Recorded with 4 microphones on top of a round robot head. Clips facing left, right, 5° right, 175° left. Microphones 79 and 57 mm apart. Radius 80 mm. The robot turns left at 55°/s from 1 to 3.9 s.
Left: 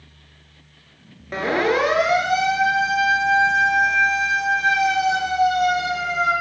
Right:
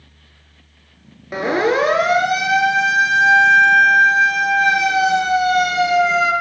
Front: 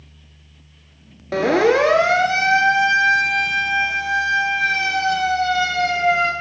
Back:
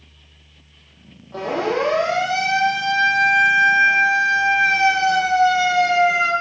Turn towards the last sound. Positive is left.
turn(degrees=-100)